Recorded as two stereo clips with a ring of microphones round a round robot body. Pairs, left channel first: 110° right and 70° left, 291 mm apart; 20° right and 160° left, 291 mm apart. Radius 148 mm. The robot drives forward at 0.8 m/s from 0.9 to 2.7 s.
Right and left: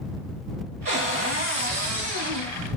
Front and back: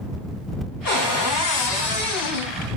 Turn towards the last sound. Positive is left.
turn(degrees=0)